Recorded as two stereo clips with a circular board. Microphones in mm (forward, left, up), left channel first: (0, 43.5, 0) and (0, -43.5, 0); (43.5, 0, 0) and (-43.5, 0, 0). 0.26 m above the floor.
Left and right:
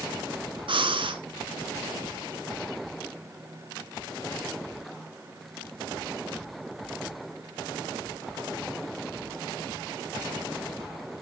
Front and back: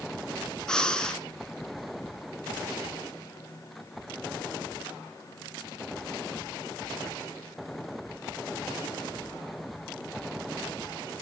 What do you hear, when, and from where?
0.7 s breathing: 80° right, 1.2 m